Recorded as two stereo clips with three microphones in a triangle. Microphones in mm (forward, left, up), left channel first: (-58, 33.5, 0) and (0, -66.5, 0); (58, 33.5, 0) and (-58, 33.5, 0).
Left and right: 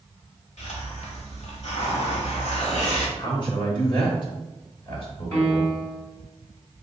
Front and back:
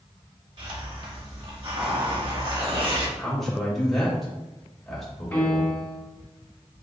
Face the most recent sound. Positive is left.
turn(degrees=65)